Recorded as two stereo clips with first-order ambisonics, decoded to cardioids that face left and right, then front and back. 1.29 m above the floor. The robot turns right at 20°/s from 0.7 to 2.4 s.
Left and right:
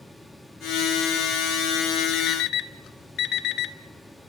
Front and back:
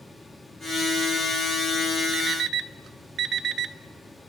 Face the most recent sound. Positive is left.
turn(degrees=125)